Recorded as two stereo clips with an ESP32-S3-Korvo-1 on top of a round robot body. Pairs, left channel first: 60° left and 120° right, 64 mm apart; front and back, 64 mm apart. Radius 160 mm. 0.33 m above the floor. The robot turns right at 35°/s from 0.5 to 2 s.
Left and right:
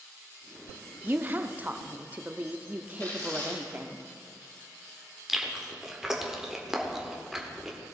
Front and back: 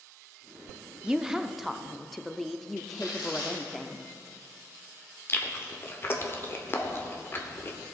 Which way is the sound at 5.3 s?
40° right.